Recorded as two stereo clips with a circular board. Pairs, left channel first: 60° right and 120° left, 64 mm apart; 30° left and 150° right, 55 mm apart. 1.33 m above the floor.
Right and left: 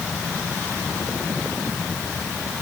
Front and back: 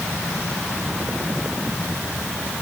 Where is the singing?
No singing in this recording.